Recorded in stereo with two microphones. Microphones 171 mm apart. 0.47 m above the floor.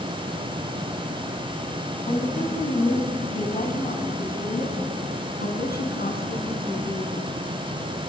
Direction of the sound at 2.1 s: 40° left (ahead or behind).